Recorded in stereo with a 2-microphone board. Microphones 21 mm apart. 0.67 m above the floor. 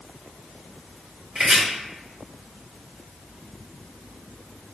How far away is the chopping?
About 1.6 m.